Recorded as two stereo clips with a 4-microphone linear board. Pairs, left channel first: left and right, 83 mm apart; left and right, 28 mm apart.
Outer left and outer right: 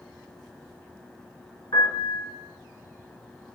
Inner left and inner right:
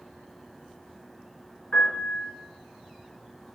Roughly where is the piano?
Left.